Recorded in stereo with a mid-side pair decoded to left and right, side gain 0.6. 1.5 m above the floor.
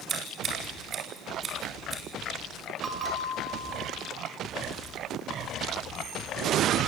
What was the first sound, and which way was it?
Scissors, 40° right.